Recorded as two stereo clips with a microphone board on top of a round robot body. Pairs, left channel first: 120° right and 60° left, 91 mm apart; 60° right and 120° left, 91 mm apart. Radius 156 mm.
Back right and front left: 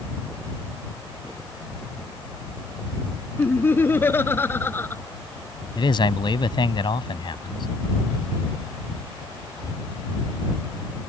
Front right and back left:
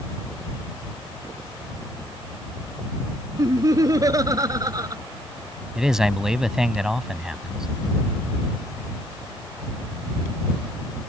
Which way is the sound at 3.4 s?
170° left.